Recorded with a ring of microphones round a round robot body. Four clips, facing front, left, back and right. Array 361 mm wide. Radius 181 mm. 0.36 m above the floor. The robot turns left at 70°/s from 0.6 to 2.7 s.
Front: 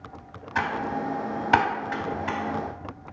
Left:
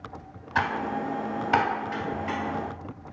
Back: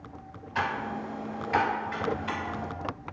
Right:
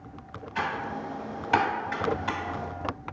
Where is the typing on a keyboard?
60° left, 0.6 m; by 2.4 s 65° right, 0.6 m.